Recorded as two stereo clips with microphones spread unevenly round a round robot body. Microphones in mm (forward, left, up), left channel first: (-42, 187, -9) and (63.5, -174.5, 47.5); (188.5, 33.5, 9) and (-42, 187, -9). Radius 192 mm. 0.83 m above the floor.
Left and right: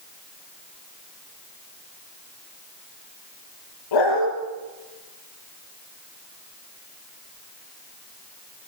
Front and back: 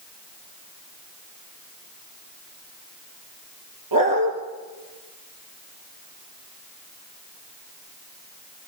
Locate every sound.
3.9 s a dog barking: 145° left, 5.5 m